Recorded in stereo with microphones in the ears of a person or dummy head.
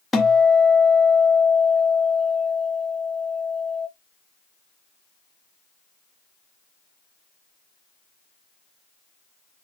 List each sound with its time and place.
0.1 s a guitar: centre (ahead or behind), 0.8 m